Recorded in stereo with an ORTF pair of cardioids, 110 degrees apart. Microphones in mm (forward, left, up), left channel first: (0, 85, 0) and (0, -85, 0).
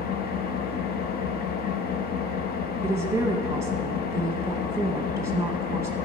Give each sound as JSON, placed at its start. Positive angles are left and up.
{"t": 0.0, "sound": "an engine running", "azimuth_deg": 60, "distance_m": 0.8}
{"t": 2.8, "sound": "a woman speaking", "azimuth_deg": -15, "distance_m": 0.7}